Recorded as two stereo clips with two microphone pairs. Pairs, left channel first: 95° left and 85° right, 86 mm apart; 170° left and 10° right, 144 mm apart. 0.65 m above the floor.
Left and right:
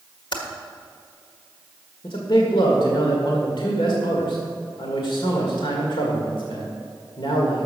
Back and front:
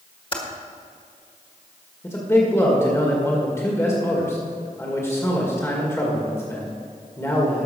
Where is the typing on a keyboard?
120° left, 1.6 m.